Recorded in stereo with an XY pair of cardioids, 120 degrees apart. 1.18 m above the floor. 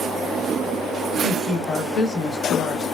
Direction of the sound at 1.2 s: 45° left.